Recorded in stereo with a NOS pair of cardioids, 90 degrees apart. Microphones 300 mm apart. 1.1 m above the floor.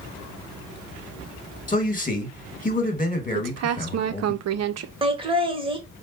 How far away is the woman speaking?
About 0.8 m.